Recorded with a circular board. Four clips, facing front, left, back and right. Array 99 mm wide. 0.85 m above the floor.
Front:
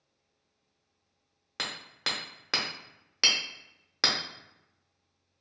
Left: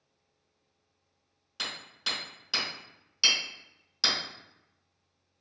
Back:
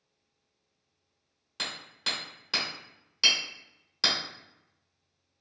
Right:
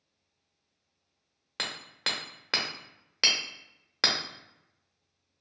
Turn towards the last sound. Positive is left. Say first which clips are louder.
# right 3 dB, front 1 dB
turn(degrees=-55)